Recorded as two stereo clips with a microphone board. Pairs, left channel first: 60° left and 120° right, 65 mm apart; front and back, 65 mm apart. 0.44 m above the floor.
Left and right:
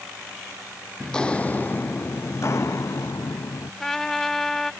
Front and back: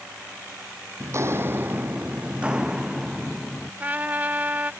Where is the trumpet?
140° left.